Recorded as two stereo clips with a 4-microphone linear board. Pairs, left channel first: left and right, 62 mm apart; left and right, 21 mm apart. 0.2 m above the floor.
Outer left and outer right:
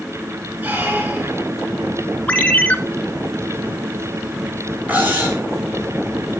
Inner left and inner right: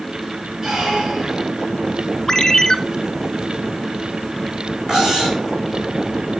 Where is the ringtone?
25° left (ahead or behind), 1.8 m.